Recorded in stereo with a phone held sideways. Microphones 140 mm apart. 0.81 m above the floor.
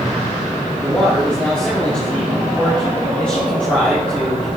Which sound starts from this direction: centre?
A man speaking, at 0.8 s.